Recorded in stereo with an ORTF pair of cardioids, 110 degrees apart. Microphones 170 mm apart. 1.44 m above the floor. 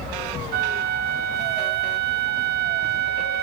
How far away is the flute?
About 0.8 m.